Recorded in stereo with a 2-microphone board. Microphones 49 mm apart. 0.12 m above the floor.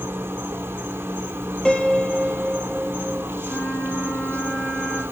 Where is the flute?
65° left (ahead or behind), 4.5 m.